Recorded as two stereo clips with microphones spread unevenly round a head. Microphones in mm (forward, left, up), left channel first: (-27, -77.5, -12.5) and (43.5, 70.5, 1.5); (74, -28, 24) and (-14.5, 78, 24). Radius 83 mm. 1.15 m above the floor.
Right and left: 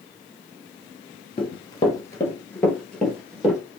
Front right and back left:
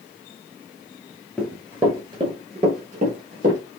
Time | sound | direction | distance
1.4 | running footsteps | 150° right | 1.2 m